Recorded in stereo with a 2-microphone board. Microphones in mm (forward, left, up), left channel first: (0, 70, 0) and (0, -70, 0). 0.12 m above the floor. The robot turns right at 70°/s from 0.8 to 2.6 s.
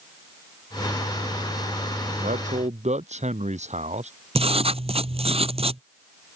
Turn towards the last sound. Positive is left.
turn(degrees=-50)  # may be behind; listen again after turning